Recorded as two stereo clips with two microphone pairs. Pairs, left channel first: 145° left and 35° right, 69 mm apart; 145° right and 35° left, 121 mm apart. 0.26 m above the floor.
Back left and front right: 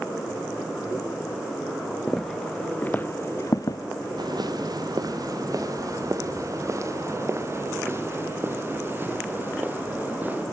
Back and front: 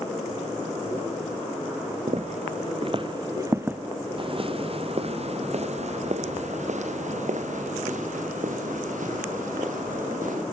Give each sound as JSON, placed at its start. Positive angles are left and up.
{"t": 2.1, "sound": "footsteps", "azimuth_deg": 55, "distance_m": 1.4}
{"t": 4.2, "sound": "footsteps", "azimuth_deg": -15, "distance_m": 2.5}